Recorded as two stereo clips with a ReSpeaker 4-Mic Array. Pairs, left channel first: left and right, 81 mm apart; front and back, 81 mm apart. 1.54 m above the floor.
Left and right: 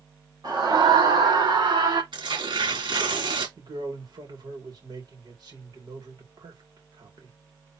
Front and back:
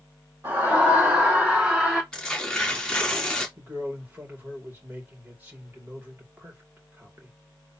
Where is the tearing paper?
85° right, 2.5 m.